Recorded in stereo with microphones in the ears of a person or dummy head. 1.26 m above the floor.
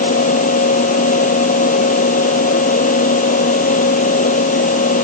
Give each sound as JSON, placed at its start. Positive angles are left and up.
{"t": 0.0, "sound": "a fan", "side_deg": 45}